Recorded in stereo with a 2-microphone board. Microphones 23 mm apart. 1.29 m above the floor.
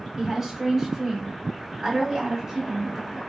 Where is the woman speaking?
10° right (ahead or behind), 1.3 m.